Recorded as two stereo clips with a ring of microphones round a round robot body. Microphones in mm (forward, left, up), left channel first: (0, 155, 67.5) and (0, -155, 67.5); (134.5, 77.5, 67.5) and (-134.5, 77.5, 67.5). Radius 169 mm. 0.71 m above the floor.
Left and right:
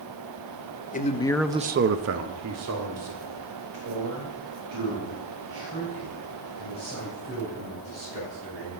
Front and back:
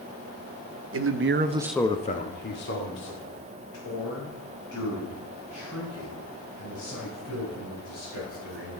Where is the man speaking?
150° left, 1.1 m; by 8.8 s 45° right, 10 m.